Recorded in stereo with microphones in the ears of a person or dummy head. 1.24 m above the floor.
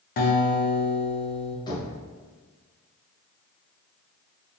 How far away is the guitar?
About 0.7 m.